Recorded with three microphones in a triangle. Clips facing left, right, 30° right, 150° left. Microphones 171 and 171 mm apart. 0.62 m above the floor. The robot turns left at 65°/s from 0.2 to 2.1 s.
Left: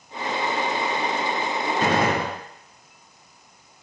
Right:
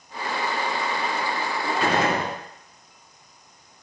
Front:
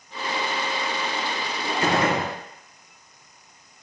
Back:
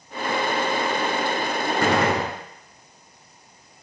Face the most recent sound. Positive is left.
turn(degrees=120)